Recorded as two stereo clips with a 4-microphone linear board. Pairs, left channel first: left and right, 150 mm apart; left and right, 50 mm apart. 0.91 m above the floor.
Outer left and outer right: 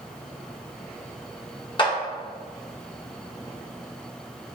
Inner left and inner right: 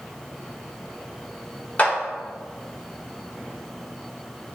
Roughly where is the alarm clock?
No alarm clock in this recording.